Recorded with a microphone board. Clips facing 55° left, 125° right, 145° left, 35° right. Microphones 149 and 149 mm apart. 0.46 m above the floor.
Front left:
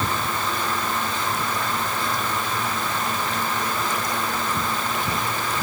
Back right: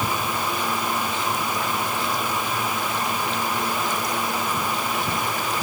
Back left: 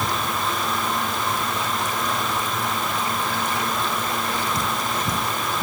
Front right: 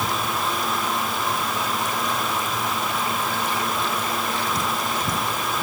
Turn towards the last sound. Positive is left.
No sound to turn to.